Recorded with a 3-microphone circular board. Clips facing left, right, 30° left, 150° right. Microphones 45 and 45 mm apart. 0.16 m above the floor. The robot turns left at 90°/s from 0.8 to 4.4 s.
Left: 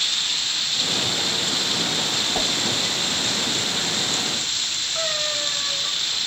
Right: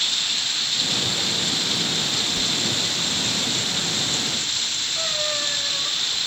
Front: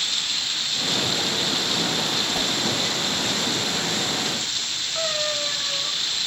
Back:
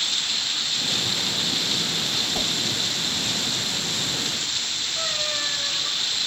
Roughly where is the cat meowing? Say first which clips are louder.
Left 1 dB, front 3 dB; ahead left.